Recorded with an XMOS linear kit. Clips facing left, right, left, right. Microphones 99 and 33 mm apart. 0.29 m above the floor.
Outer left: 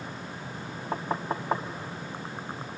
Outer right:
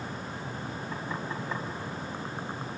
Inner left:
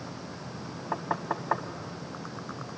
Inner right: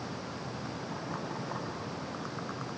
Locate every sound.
0.9 s knocking: 55° left (ahead or behind), 1.3 m